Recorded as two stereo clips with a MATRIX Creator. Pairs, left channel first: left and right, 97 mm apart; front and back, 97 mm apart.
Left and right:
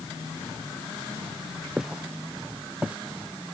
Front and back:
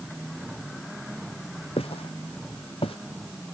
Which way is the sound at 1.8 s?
10° right.